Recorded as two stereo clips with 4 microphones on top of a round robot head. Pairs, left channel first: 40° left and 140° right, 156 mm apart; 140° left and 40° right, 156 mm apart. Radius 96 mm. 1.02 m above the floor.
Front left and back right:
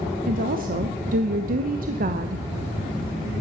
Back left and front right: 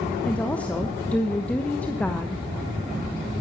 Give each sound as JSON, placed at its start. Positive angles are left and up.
{"t": 0.3, "sound": "a woman speaking", "azimuth_deg": -135, "distance_m": 1.1}